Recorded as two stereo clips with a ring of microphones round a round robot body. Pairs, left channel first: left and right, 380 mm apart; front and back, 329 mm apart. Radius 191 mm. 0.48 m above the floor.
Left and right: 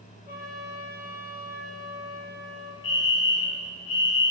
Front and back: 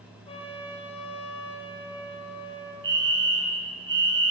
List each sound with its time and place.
0.3 s a trumpet: 75° left, 7.5 m
2.8 s a fire alarm: 125° left, 8.5 m